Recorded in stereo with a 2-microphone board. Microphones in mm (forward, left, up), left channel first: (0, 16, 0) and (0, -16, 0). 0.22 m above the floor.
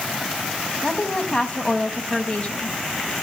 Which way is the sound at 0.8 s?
30° left (ahead or behind).